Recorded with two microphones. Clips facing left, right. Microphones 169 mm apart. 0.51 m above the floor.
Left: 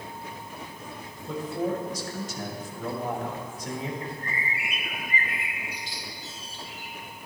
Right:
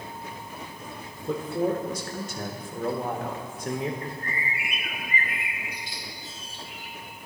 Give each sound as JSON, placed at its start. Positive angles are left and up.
{"t": 1.3, "sound": "a man speaking", "side_deg": -55, "distance_m": 1.3}
{"t": 4.0, "sound": "a bird", "side_deg": -55, "distance_m": 1.4}